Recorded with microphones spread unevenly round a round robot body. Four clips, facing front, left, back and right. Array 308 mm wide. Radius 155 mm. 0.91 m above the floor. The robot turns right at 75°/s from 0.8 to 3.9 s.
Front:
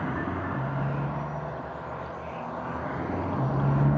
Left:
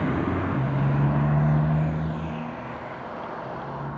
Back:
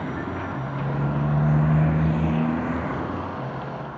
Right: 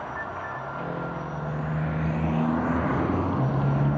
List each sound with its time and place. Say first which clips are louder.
0.0 s a motorcycle: left 8 dB, back 1 dB; 95° left; by 4.0 s 35° right